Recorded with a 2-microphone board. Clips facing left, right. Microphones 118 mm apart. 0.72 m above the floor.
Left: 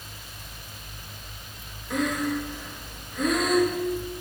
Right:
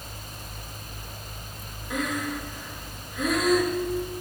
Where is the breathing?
5° right (ahead or behind), 1.1 m.